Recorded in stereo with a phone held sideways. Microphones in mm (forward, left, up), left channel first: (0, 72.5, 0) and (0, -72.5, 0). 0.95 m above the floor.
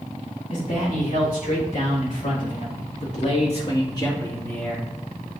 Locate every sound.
0.5 s a man speaking: 75° left (ahead or behind), 4 m; by 4.9 s 5° left (ahead or behind), 1.9 m